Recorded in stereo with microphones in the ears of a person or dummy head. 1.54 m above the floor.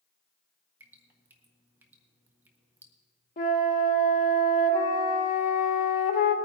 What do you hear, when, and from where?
0.8 s dripping: 10° right (ahead or behind), 1.5 m
3.4 s a flute: 45° left (ahead or behind), 1.6 m